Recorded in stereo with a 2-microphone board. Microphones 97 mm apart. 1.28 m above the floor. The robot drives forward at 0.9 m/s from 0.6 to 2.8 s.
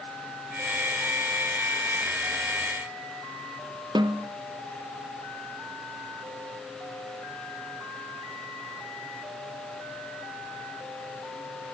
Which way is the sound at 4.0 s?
50° right (ahead or behind).